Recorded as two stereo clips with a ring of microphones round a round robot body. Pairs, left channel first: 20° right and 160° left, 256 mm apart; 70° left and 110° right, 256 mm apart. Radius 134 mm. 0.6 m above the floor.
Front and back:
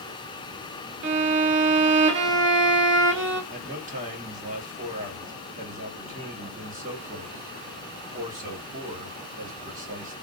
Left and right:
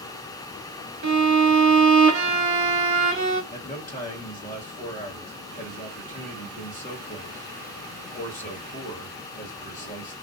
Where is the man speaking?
110° left, 1.5 m.